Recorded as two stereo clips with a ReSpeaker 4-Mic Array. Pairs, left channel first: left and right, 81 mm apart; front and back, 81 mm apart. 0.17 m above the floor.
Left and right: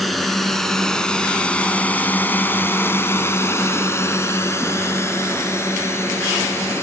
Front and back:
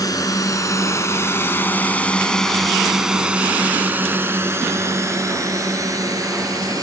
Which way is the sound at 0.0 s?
Straight ahead.